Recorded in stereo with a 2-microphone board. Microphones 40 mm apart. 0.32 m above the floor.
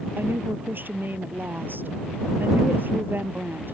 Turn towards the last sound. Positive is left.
turn(degrees=-50)  # may be behind; listen again after turning